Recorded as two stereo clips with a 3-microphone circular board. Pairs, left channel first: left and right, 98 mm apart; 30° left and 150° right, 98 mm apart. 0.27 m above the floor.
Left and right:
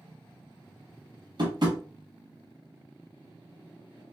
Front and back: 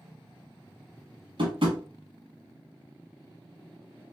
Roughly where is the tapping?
Behind right.